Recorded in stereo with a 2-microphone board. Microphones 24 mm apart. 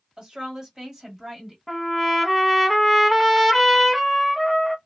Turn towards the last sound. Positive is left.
turn(degrees=0)  # may be behind; listen again after turning